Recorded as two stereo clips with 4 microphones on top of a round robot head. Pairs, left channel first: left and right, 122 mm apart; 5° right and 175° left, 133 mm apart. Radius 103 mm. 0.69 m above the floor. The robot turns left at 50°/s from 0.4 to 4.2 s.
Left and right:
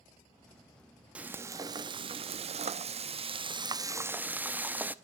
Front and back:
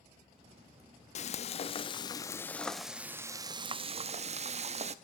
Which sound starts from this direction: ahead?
Frying, at 1.1 s.